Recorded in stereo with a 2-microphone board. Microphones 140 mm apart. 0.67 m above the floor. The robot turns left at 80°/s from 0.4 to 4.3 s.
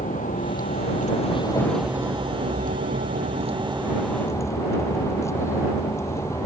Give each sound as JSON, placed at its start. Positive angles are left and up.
{"t": 0.0, "sound": "a vehicle", "azimuth_deg": 110}